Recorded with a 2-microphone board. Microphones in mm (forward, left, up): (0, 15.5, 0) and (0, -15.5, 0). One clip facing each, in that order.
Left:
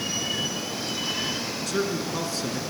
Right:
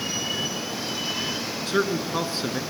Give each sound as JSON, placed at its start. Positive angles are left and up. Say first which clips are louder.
{"t": 1.7, "sound": "a man speaking", "louder": "right 4 dB", "side_deg": -30, "distance_m": 2.0}